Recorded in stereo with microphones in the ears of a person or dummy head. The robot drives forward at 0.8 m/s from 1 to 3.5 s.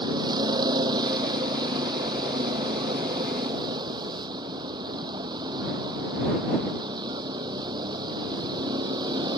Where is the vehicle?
25° right (ahead or behind).